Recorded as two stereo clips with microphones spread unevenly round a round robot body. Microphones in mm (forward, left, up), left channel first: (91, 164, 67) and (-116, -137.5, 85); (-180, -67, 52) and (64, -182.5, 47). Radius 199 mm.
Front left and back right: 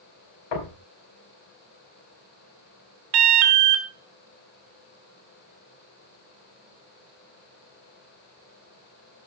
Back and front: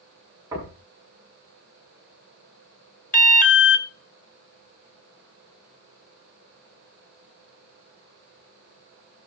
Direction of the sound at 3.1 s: 145° right.